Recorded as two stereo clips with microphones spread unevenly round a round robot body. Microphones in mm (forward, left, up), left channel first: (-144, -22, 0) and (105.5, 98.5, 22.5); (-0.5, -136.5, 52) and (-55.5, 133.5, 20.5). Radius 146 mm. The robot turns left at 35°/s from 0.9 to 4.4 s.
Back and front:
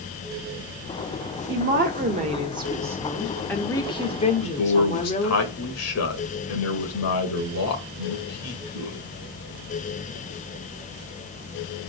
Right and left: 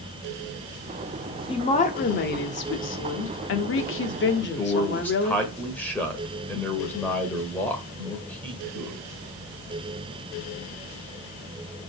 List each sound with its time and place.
1.5 s a woman speaking: 10° right, 1.2 m; by 5.4 s 110° right, 1.2 m
4.4 s a man speaking: 165° right, 1.9 m